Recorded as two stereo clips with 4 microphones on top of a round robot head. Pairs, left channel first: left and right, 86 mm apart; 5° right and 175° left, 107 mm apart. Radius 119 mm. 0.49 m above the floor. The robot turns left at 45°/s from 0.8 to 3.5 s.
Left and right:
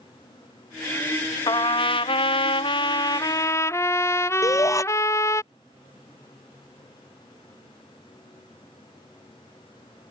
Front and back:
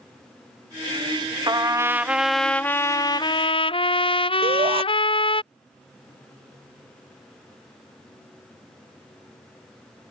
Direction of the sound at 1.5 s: 125° left.